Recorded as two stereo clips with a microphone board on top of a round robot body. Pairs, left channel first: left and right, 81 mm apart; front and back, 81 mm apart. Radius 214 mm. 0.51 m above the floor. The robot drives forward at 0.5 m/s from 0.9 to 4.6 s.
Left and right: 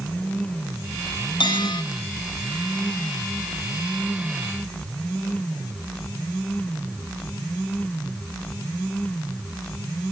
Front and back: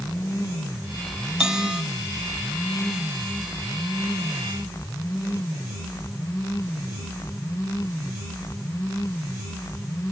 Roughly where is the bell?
Left.